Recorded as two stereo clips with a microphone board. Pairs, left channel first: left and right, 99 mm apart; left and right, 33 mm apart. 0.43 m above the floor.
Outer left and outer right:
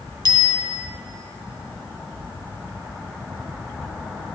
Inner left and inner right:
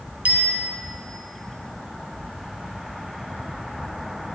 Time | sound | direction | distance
0.2 | a bicycle bell | 50° right (ahead or behind) | 2.5 m